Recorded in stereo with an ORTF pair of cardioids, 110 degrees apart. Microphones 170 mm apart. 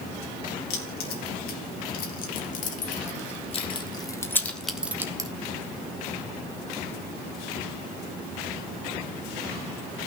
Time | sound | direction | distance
0.7 | keys jangling | 70° left | 2.5 m